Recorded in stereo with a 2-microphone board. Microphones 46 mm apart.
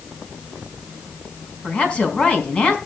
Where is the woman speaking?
30° left (ahead or behind), 4 m.